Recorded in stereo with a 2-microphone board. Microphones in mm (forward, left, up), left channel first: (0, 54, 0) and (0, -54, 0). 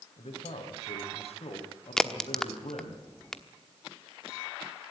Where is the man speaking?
60° left (ahead or behind), 3.5 m.